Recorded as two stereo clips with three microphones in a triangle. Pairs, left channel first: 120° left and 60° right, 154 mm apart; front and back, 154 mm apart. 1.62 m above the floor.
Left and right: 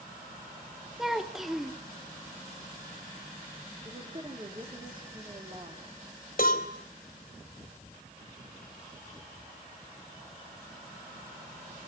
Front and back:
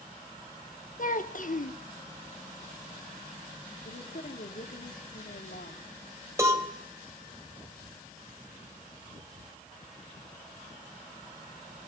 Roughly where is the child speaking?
Ahead left.